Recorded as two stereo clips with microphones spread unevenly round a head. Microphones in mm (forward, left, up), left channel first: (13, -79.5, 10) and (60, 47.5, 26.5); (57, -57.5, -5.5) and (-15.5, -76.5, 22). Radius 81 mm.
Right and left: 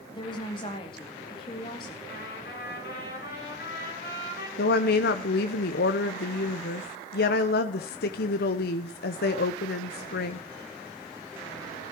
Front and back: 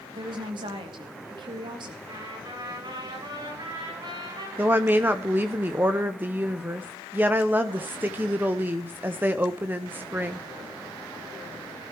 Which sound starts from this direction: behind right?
A trumpet, at 2.0 s.